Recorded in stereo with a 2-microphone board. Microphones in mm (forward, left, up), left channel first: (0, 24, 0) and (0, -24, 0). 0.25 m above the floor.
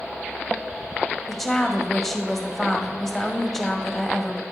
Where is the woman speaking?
5° left (ahead or behind), 0.9 m.